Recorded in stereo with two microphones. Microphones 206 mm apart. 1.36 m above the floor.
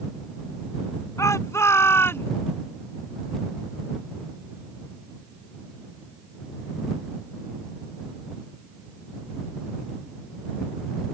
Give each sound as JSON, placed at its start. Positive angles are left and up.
{"t": 1.2, "sound": "a shout", "side_deg": 15}